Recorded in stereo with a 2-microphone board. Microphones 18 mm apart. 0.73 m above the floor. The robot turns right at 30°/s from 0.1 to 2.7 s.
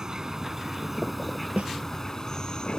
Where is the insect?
35° right; by 2.8 s 45° left.